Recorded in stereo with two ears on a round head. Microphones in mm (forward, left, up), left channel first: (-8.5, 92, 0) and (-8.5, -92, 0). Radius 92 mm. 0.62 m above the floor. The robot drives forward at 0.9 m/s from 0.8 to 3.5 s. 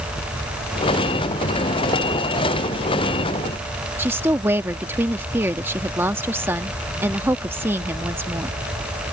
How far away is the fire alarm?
I don't hear a fire alarm.